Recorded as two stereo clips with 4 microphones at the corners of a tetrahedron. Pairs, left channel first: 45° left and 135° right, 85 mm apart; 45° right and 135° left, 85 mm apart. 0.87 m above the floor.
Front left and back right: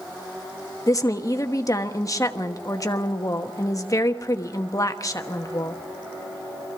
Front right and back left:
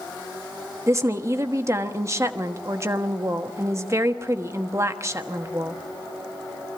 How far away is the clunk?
I don't hear a clunk.